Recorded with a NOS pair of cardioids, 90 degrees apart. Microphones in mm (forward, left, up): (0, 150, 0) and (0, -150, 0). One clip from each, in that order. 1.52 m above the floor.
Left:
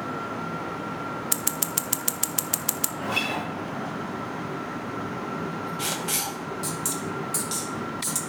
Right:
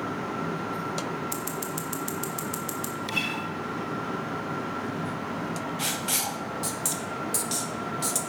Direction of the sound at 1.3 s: 50° left.